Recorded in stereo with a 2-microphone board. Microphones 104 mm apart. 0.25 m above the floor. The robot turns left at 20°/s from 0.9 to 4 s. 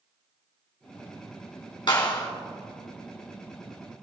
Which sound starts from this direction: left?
A clap, at 1.9 s.